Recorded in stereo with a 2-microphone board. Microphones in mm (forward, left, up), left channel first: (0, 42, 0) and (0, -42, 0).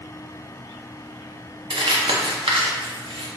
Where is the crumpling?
80° right, 0.7 m.